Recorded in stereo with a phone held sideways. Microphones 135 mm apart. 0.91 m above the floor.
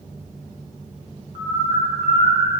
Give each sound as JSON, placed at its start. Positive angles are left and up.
{"t": 1.4, "sound": "a bird", "side_deg": -45, "distance_m": 1.9}